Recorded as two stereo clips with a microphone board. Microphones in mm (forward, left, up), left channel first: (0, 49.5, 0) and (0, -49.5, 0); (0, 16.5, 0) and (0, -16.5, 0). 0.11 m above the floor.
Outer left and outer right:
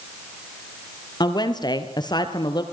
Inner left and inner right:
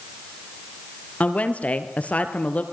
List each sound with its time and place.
1.2 s a woman speaking: 45° left (ahead or behind), 3 m